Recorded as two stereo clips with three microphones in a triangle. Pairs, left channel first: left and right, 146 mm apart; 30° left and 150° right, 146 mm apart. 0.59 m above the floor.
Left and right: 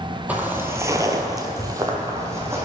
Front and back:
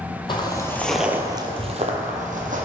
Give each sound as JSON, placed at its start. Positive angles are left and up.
{"t": 0.3, "sound": "footsteps", "azimuth_deg": -10, "distance_m": 0.9}